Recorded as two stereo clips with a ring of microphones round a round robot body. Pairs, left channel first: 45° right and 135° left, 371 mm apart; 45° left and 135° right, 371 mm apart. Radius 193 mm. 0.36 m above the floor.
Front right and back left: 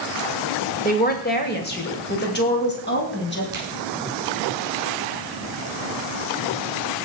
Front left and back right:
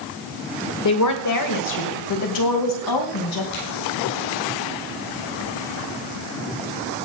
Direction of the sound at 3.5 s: 55° left.